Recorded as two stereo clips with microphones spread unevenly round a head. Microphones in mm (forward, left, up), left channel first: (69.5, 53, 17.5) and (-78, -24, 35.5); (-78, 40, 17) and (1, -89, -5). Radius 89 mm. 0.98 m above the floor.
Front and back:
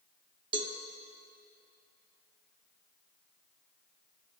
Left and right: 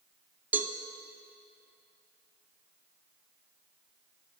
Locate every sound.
0.5 s a cowbell: 145° right, 0.5 m